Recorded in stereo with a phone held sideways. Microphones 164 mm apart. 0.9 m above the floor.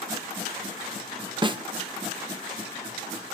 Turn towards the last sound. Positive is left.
turn(degrees=-30)  # may be behind; listen again after turning